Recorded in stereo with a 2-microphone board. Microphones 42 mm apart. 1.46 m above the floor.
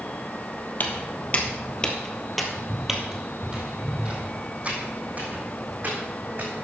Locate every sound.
0.8 s footsteps: 45° left (ahead or behind), 2 m; by 6.5 s 45° right (ahead or behind), 5 m